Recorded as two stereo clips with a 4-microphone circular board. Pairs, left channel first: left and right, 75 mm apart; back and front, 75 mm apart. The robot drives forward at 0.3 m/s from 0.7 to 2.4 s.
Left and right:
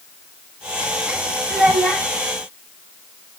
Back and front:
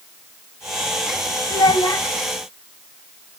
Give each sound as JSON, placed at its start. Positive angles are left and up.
{"t": 1.5, "sound": "a child speaking", "azimuth_deg": 180, "distance_m": 1.6}